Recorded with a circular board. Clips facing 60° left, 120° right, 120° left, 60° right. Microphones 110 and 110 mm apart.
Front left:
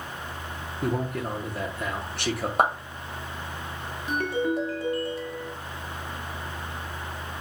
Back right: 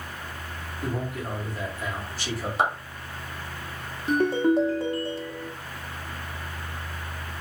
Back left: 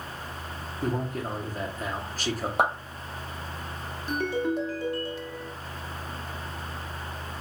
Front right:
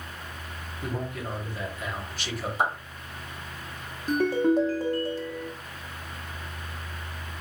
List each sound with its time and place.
0.8 s a man speaking: 75° left, 1.3 m
2.6 s a clap: 95° left, 1.8 m
4.1 s a ringtone: 75° right, 0.9 m